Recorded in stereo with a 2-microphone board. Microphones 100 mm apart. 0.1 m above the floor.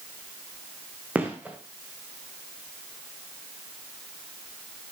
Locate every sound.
1.1 s a gunshot: 15° right (ahead or behind), 4 m